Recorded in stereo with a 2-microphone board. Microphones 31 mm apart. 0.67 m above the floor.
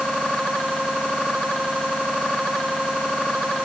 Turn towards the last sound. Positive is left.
No sound to turn to.